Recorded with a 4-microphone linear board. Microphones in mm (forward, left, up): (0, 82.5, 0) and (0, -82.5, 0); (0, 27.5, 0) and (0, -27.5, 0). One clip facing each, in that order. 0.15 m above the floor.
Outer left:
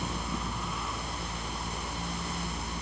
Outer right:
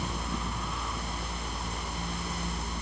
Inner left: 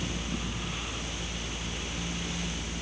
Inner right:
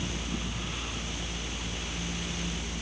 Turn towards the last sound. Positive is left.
No sound to turn to.